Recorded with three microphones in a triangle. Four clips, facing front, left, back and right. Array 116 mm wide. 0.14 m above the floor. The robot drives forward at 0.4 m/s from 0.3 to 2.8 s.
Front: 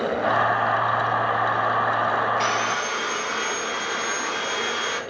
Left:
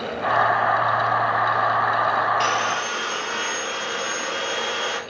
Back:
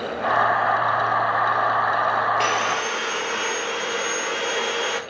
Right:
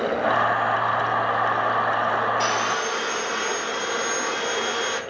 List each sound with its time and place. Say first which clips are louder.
2.4 s sawing: left 1 dB, back 1 dB; 165° right, 1.5 m